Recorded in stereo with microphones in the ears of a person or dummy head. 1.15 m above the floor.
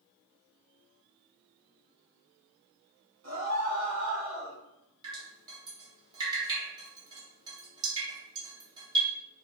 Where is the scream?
55° right (ahead or behind), 1.3 m; by 4.6 s 10° left (ahead or behind), 0.8 m.